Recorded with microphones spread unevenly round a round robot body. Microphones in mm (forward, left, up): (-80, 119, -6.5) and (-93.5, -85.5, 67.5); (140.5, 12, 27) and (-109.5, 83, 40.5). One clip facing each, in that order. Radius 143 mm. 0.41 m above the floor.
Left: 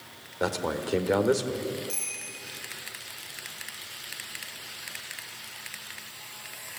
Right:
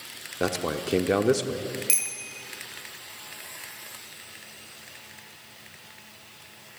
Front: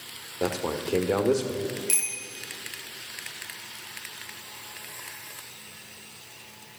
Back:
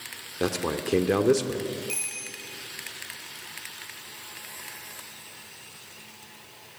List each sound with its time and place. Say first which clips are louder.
0.4 s a man speaking: right 1 dB, back 1 dB; 160° right, 1.5 m
1.9 s a bicycle bell: even, front 1 dB; 85° right, 7 m